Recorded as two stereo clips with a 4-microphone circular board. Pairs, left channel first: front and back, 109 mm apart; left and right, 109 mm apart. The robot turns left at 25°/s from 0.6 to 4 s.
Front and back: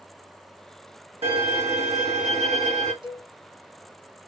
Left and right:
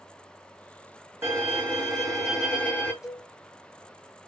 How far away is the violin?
About 1.6 m.